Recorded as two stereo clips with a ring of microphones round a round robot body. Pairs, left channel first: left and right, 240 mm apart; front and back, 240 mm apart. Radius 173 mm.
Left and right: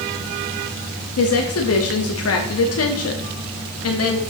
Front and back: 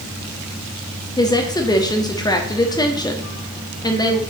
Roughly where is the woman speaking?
Left.